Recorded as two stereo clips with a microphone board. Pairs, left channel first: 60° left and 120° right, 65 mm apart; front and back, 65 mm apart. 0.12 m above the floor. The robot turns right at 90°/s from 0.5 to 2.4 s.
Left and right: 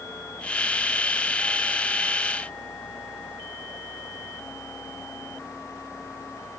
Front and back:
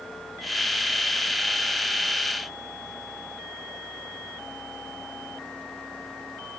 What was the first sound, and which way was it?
Only background noise.